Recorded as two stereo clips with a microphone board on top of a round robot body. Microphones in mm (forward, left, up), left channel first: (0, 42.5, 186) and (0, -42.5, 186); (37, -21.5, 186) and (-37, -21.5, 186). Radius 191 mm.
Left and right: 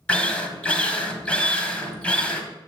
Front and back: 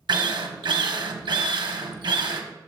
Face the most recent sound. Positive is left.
turn(degrees=165)